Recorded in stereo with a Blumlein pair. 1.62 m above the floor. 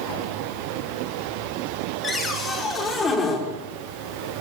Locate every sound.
2.0 s a cupboard door: 20° left, 6 m